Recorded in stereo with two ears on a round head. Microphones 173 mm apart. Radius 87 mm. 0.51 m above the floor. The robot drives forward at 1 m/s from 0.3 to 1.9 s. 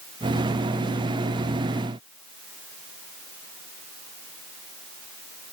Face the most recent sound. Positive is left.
No sound to turn to.